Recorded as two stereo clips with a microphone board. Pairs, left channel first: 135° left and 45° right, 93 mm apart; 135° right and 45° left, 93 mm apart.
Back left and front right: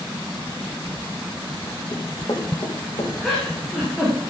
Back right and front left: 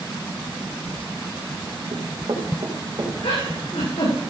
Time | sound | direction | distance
1.9 | running footsteps | 80° left | 3 m
3.2 | a giggle | 135° right | 6 m